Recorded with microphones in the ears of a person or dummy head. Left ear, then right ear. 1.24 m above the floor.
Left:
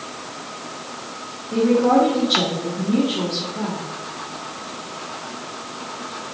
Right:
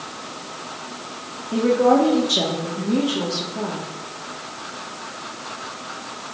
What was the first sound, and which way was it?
A woman speaking, 50° right (ahead or behind).